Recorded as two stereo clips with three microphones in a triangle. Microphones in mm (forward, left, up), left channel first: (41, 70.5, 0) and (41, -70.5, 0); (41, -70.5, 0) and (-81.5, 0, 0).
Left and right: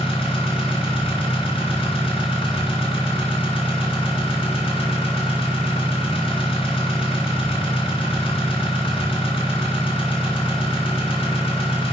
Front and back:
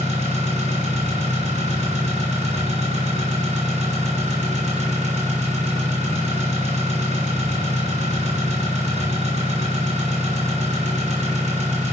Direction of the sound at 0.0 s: 125° left.